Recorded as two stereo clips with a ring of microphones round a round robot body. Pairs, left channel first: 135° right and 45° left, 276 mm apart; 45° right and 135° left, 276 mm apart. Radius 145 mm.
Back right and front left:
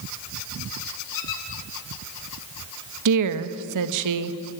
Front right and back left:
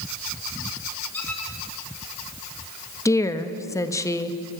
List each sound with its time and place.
1.1 s a squeak: 130° right, 2.5 m
3.0 s a woman speaking: 35° left, 1.1 m